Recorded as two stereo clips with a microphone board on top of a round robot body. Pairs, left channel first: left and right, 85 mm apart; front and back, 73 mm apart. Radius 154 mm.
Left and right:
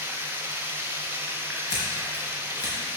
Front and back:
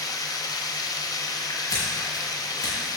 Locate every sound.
0.0 s running water: 25° right, 1.2 m
1.7 s scissors: 45° left, 3.5 m